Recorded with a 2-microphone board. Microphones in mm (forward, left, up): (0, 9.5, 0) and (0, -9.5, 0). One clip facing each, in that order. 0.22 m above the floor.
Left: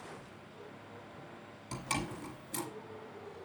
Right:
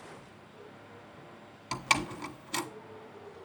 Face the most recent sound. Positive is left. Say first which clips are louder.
# right 8 dB
turn(degrees=-50)  # may be behind; listen again after turning